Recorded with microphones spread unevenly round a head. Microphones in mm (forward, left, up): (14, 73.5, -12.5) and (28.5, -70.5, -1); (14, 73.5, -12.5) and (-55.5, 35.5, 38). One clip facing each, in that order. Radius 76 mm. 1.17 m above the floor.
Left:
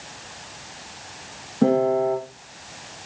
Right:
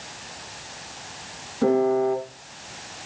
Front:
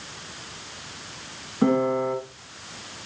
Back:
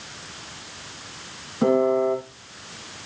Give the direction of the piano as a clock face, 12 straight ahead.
7 o'clock.